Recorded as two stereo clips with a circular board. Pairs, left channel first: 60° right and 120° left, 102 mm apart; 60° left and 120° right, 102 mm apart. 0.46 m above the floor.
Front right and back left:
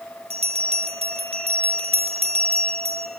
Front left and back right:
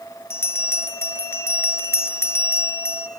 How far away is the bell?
About 3.5 m.